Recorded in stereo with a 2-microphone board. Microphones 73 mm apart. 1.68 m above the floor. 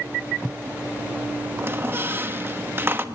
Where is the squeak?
30° right (ahead or behind), 1.2 m.